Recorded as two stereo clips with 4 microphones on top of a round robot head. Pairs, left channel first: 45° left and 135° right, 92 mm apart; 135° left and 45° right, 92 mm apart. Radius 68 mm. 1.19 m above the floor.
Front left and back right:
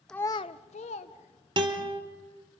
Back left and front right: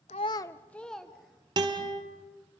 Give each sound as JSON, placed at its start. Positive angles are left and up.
{"t": 0.1, "sound": "a child speaking", "azimuth_deg": 130, "distance_m": 0.5}
{"t": 1.6, "sound": "a guitar", "azimuth_deg": -95, "distance_m": 1.8}